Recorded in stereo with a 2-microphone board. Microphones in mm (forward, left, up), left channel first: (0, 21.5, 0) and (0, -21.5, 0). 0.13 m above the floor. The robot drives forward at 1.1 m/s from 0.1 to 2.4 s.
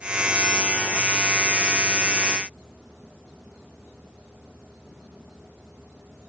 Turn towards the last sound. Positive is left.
No sound to turn to.